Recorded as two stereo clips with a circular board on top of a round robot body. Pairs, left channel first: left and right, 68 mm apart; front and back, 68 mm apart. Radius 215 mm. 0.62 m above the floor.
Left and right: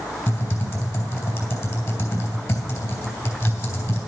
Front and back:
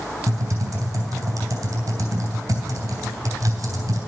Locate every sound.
0.3 s typing on a keyboard: 140° left, 3 m